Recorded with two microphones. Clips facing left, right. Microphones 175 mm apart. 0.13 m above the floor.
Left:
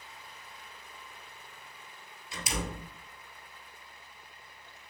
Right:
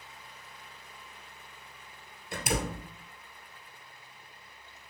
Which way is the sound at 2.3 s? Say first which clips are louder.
Right 5 dB; 55° right (ahead or behind).